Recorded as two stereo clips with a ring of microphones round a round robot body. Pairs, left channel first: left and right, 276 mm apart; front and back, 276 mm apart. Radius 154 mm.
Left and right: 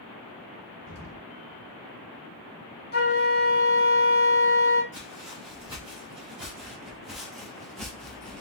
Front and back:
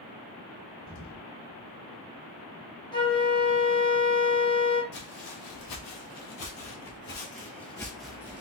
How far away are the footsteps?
About 1.8 m.